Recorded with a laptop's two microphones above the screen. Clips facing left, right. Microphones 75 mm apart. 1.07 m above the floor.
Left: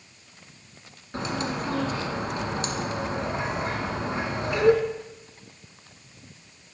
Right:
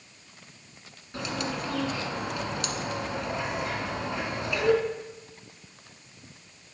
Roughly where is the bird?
Left.